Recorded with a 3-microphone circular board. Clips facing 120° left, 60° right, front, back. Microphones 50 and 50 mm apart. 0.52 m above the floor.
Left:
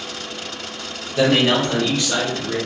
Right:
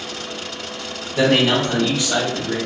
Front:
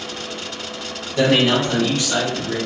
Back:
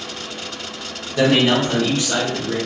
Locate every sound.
1.2 s a man speaking: 110° right, 1.5 m; by 2.6 s 160° right, 1.4 m